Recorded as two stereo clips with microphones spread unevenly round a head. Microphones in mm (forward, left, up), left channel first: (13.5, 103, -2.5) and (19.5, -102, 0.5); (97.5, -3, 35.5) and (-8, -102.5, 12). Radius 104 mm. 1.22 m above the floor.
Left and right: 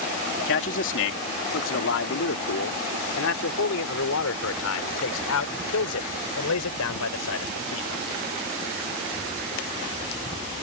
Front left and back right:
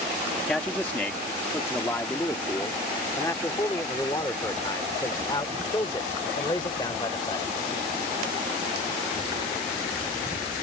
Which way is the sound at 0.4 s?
130° left.